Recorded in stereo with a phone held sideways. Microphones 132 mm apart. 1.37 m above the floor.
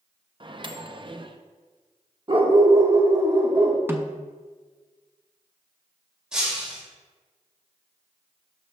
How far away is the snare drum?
About 0.6 m.